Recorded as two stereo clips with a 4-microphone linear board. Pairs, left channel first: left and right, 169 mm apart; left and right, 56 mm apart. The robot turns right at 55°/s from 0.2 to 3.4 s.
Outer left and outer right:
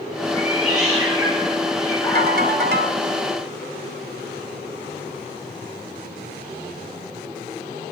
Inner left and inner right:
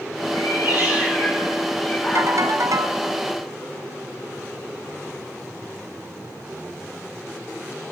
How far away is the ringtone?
About 1.3 m.